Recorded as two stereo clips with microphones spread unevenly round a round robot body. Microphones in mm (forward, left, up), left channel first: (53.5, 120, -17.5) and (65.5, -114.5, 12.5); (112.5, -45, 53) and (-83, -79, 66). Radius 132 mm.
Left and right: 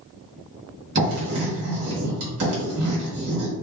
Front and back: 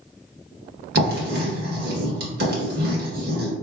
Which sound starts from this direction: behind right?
Writing, at 0.9 s.